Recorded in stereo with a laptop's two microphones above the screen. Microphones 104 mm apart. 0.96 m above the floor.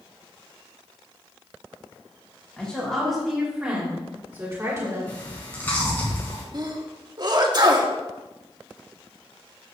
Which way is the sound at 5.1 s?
15° left (ahead or behind).